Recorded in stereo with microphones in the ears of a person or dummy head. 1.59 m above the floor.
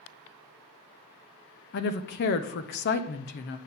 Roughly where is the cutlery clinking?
I don't hear cutlery clinking.